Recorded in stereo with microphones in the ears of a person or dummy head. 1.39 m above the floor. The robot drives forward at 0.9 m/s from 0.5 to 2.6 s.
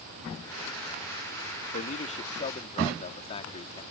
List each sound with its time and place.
1.7 s a man speaking: 40° left (ahead or behind); by 3.8 s 30° left (ahead or behind)